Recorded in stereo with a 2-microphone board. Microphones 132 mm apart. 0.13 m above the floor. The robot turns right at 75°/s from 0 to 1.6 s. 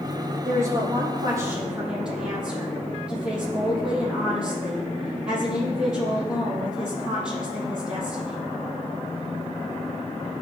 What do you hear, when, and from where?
0.5 s a woman speaking: 95° right, 4 m; by 8.4 s 5° right, 4 m